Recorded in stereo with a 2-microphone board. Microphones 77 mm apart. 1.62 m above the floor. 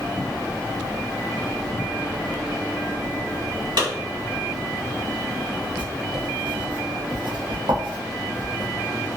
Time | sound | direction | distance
3.8 | a clap | 80° right | 1.7 m
5.8 | writing | 80° right | 0.7 m